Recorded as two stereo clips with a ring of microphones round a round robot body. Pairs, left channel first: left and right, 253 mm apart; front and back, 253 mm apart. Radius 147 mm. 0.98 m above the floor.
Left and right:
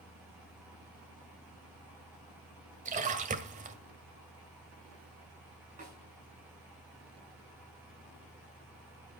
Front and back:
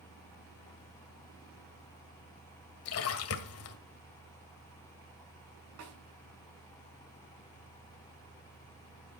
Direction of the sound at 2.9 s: 30° right.